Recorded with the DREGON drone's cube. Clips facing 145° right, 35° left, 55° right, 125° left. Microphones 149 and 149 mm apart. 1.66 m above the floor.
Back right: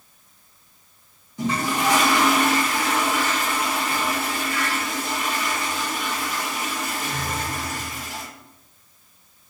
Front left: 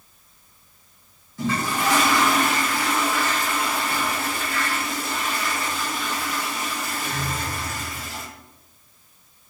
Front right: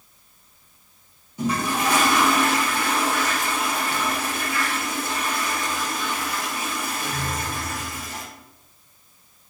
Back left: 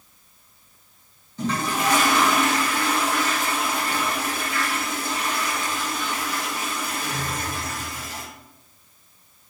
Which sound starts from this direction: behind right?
A toilet flushing, at 1.4 s.